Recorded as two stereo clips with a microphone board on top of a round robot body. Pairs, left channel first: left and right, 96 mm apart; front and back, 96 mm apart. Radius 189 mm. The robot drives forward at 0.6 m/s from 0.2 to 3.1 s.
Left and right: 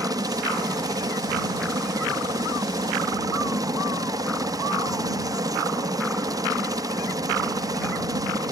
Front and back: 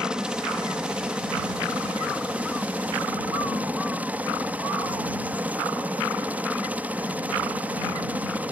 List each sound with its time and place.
0.0 s a helicopter: 100° right; by 8.5 s 115° right